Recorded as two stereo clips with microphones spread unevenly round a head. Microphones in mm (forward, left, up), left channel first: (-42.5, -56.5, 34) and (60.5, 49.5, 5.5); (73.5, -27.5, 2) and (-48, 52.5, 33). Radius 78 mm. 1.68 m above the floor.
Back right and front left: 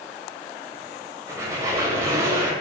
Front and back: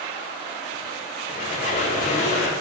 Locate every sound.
1.3 s a squeak: 30° right, 0.7 m